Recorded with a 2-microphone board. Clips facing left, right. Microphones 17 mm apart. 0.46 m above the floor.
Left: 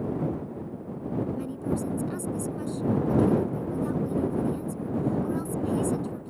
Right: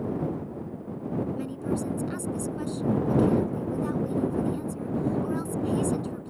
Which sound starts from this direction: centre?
A woman speaking, at 1.4 s.